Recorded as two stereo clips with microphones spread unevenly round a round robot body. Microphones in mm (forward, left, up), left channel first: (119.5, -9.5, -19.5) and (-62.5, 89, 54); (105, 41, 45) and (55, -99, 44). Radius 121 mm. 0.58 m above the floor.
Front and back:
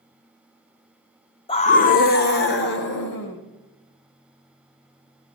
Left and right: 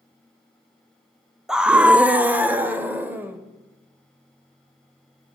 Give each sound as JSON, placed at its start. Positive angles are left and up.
{"t": 1.5, "sound": "a scream", "azimuth_deg": -25, "distance_m": 0.7}